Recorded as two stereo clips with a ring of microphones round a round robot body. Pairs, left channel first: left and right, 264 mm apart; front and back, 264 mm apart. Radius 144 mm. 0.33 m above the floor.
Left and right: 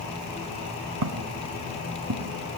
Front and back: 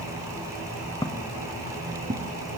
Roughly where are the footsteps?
Right.